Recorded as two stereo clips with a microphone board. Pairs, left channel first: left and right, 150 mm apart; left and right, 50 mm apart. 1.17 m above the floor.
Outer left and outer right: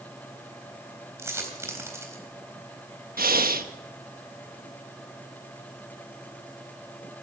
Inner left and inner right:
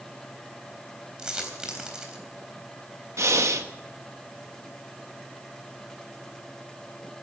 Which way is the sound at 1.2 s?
20° right (ahead or behind).